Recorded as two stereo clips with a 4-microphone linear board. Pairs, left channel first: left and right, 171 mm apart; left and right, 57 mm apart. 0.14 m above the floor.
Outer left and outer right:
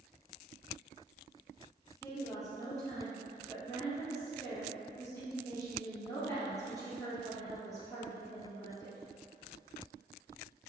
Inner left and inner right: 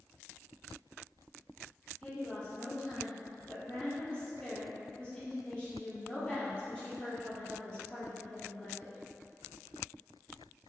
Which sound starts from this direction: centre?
A woman speaking, at 2.0 s.